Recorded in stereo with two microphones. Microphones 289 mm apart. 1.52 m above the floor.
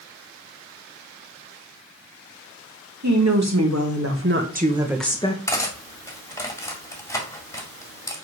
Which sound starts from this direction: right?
A woman speaking, at 3.0 s.